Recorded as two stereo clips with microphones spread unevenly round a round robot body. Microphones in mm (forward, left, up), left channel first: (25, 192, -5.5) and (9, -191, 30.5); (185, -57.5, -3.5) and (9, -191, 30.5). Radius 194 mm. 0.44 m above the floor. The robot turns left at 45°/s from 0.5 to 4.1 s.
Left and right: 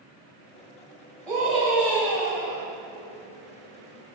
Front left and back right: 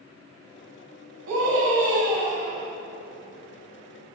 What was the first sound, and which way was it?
A scream, 175° left.